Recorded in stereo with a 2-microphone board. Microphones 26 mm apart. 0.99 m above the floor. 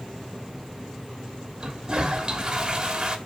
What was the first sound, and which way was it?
A toilet flushing, 30° right (ahead or behind).